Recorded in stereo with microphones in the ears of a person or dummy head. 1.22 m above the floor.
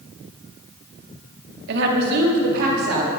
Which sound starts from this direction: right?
A woman speaking, at 1.7 s.